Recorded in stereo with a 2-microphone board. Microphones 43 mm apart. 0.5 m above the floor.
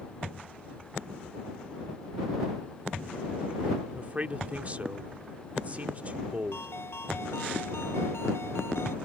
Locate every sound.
3.9 s a man speaking: 35° right (ahead or behind)
6.5 s a ringtone: 80° left